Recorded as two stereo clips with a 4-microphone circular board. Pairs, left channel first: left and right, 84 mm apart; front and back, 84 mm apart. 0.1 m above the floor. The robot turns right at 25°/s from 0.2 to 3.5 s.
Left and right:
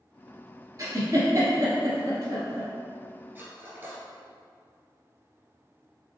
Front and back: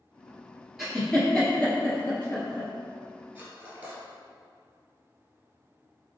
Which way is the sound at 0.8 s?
95° right.